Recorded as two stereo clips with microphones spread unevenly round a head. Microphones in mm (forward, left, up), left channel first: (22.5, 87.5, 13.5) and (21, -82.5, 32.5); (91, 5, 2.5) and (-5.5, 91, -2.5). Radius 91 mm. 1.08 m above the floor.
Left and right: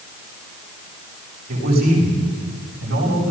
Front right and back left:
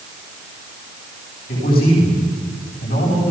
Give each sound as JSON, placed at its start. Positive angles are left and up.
{"t": 1.5, "sound": "a man speaking", "azimuth_deg": -55, "distance_m": 10.0}